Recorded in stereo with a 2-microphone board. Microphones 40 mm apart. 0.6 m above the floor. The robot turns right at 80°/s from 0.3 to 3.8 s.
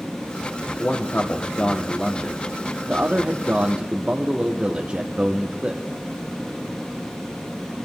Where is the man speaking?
70° left, 1.0 m; by 5.8 s 50° right, 1.0 m.